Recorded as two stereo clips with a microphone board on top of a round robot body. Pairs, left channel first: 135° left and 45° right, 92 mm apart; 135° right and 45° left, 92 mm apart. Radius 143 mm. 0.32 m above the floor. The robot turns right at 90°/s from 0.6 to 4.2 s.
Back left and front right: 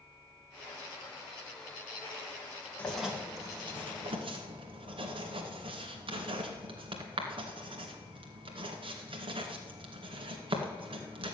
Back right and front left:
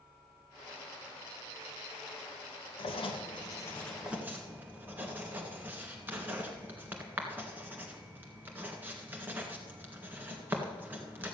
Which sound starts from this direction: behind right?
Writing, at 2.8 s.